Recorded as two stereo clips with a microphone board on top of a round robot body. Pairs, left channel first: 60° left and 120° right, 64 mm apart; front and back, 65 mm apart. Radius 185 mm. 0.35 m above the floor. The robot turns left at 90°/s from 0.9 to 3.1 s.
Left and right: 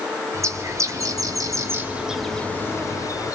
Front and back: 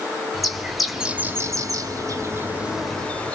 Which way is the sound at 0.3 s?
95° right.